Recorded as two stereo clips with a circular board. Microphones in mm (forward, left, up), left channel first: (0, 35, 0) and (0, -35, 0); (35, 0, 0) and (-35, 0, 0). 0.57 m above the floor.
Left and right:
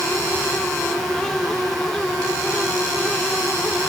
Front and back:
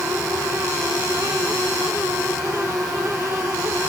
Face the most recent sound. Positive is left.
No sound to turn to.